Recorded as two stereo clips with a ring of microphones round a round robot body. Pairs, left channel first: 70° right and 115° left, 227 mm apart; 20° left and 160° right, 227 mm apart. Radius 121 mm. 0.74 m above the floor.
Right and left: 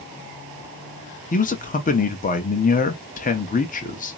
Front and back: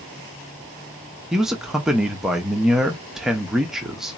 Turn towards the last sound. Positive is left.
turn(degrees=-70)